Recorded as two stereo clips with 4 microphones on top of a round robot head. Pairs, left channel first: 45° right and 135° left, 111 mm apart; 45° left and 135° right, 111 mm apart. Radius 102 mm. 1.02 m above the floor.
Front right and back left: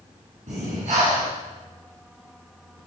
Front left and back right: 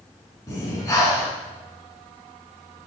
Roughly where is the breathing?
Left.